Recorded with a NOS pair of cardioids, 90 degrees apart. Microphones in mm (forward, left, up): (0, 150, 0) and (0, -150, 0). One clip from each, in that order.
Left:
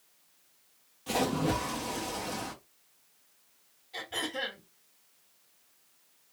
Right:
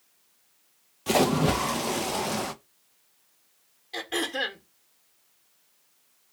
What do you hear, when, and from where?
1.1 s a splash: 40° right, 0.5 m
3.9 s throat clearing: 60° right, 1.2 m